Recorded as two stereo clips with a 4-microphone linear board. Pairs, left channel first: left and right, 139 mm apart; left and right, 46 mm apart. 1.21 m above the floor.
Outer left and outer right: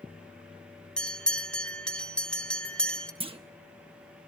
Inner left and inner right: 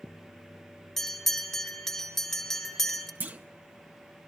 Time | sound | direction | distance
1.0 | a bell | 5° left (ahead or behind) | 1.1 m
3.2 | a clunk | 40° right (ahead or behind) | 0.7 m